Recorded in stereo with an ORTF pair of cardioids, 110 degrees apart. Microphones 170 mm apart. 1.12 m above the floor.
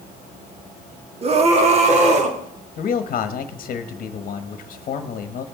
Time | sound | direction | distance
1.2 | a scream | 35° right | 1.6 m
2.8 | a man speaking | 45° left | 1.3 m